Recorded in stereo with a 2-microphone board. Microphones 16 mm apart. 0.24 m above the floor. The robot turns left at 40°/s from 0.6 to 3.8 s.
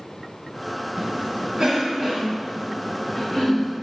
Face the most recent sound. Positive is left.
turn(degrees=25)  # may be behind; listen again after turning